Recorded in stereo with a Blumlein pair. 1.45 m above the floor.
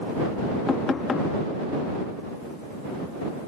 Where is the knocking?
15° left.